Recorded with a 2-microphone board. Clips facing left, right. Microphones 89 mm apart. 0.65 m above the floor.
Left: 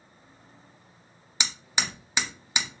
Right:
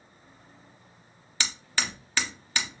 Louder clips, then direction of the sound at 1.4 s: Even; 15° left (ahead or behind).